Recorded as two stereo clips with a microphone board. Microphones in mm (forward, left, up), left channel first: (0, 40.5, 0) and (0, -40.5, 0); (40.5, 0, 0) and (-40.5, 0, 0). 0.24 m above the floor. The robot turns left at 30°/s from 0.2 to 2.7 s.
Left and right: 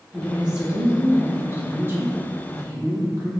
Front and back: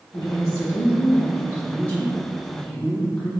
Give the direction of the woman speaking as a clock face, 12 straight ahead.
12 o'clock.